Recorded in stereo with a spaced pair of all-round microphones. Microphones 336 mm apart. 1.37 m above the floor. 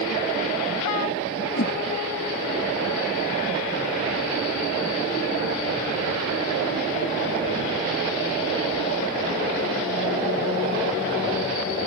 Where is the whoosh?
50° left (ahead or behind).